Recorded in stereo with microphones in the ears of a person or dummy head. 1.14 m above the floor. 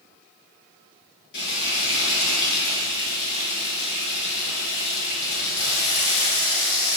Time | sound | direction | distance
1.3 | frying | 60° left (ahead or behind) | 6.5 m